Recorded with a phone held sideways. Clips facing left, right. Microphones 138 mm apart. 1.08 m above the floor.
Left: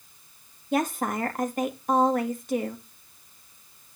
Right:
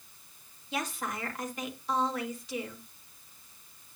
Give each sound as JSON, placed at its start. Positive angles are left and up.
{"t": 0.7, "sound": "a woman speaking", "side_deg": 50, "distance_m": 2.0}